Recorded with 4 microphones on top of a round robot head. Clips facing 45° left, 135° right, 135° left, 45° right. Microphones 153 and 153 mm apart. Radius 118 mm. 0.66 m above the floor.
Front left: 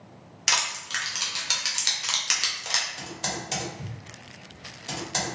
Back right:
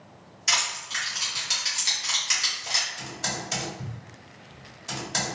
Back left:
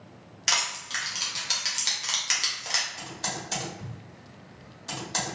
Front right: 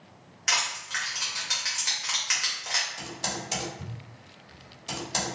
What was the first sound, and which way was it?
Crushing, 75° left.